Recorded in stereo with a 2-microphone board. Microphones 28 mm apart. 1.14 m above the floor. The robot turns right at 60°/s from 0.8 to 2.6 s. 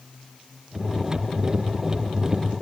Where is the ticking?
I don't hear ticking.